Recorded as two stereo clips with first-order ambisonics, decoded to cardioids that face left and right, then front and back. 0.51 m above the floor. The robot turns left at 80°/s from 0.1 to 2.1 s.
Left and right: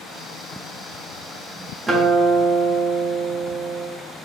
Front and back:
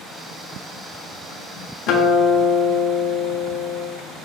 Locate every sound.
1.9 s a guitar: 5° right, 0.5 m; by 3.9 s 25° right, 0.5 m